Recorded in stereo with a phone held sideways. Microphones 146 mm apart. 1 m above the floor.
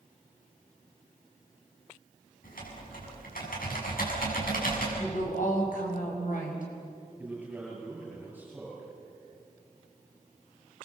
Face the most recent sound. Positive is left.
turn(degrees=-10)  # may be behind; listen again after turning